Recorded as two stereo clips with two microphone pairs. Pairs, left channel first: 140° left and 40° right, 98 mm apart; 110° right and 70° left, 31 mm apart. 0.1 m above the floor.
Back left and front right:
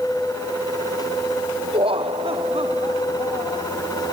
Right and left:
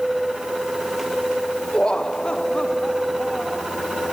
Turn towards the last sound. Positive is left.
turn(degrees=-45)